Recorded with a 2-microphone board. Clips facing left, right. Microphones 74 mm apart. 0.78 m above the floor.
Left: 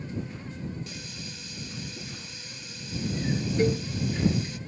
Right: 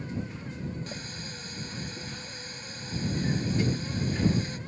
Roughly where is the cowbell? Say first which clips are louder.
Left 5 dB; left.